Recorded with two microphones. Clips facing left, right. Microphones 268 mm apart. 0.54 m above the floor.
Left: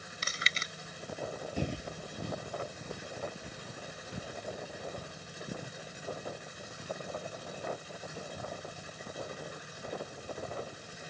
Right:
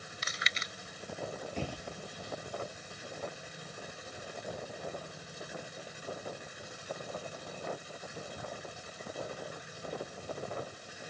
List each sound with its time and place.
0.2 s chewing: 35° left (ahead or behind)
1.6 s footsteps: 10° left (ahead or behind); by 11.0 s 80° left